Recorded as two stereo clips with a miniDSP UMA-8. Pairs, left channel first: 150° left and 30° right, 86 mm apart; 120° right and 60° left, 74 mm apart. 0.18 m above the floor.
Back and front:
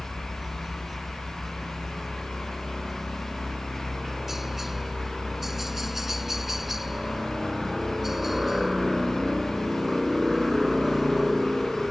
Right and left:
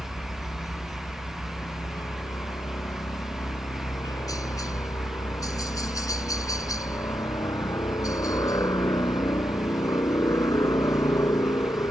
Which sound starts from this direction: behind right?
A helicopter, at 0.0 s.